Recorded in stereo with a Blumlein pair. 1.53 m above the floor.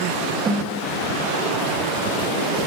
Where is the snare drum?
20° right, 5 m.